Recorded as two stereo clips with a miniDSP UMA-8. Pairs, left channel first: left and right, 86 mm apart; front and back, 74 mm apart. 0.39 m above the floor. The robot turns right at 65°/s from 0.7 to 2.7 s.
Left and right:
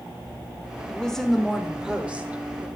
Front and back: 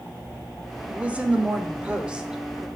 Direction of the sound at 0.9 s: 145° left.